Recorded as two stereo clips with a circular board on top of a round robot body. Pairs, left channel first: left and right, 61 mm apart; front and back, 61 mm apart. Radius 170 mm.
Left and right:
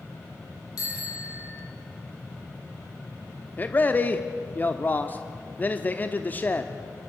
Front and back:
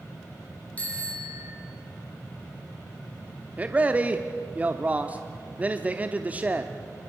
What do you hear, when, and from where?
0.8 s a bicycle bell: 70° left, 7 m
3.6 s a man speaking: 130° left, 1.2 m